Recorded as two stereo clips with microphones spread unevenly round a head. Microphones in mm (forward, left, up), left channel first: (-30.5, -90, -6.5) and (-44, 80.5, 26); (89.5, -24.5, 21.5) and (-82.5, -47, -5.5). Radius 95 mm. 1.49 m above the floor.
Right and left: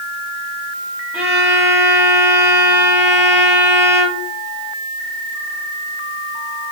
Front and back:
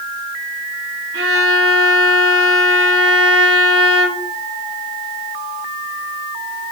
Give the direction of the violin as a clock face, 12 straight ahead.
6 o'clock.